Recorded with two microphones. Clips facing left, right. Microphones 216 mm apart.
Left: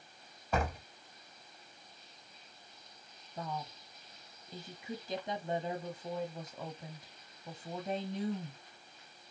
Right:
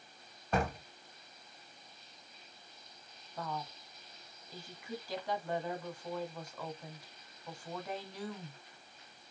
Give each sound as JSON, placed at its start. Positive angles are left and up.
{"t": 0.5, "sound": "a door slam", "side_deg": 5, "distance_m": 2.0}
{"t": 3.4, "sound": "a woman speaking", "side_deg": 20, "distance_m": 1.1}